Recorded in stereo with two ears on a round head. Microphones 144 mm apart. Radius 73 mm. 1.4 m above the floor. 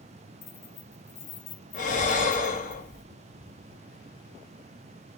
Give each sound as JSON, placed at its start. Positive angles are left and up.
{"t": 0.4, "sound": "keys jangling", "side_deg": 65, "distance_m": 1.3}
{"t": 1.7, "sound": "breathing", "side_deg": 50, "distance_m": 1.3}